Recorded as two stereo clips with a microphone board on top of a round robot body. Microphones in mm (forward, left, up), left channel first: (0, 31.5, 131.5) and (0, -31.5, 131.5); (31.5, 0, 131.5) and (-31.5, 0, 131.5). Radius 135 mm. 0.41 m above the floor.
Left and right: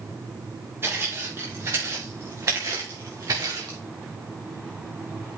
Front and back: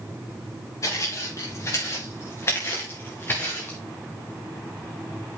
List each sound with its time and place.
0.8 s footsteps: 35° right, 4.5 m; by 3.8 s 60° right, 3 m